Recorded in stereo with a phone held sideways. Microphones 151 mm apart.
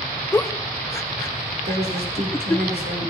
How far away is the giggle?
About 0.8 m.